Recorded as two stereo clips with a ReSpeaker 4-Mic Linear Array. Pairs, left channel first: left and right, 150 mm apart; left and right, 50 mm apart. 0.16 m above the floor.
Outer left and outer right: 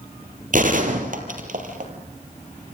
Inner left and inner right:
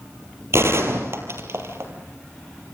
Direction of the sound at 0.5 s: 60° right (ahead or behind).